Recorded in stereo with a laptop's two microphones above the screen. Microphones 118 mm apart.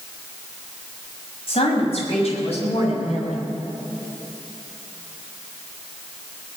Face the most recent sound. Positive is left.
turn(degrees=60)  # may be behind; listen again after turning